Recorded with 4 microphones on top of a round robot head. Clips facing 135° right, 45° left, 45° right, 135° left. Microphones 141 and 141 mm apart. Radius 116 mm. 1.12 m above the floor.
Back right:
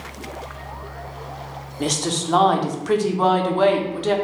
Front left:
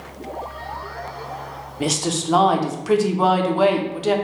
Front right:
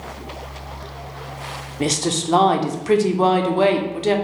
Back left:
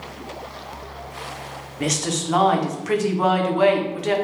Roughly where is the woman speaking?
Ahead right.